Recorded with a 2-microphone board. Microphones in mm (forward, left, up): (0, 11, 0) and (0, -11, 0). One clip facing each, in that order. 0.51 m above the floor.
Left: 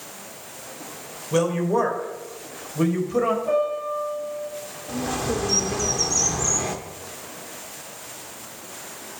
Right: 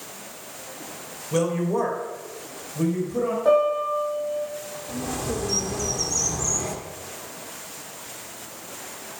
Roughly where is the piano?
Right.